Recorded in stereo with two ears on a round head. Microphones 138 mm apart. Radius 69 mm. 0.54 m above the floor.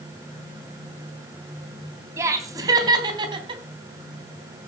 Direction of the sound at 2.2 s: 20° right (ahead or behind).